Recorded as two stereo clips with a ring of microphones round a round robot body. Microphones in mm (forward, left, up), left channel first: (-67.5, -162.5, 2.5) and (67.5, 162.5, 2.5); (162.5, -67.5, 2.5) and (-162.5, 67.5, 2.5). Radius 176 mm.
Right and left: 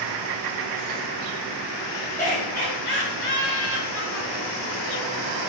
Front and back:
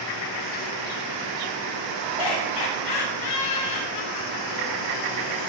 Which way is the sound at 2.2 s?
45° right.